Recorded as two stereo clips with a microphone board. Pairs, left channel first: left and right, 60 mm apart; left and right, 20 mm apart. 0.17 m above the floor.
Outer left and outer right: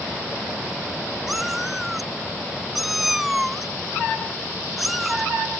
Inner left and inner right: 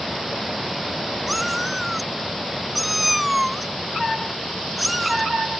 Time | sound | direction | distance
1.3 | a cat meowing | 5° right (ahead or behind) | ?